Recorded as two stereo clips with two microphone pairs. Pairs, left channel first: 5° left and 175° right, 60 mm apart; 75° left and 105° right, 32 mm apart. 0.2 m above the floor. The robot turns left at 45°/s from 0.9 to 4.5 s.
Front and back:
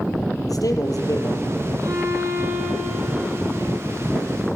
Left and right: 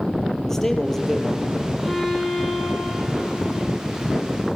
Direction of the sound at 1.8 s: 170° left.